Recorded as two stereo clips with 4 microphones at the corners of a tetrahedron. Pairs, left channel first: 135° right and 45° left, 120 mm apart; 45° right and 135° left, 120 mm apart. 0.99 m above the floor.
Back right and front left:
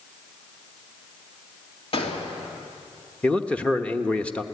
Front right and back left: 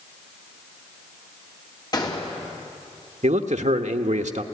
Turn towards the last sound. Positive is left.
turn(degrees=145)